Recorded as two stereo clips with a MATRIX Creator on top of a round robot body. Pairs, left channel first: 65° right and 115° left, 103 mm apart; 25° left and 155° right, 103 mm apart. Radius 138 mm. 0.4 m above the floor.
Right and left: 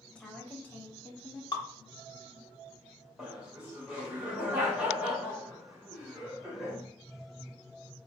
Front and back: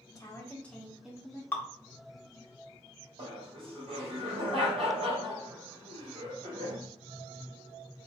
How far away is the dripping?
About 1.1 m.